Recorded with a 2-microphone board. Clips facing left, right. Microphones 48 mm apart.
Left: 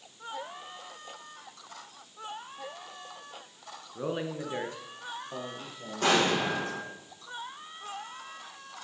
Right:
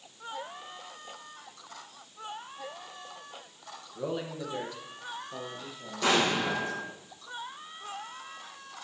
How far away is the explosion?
About 4.5 m.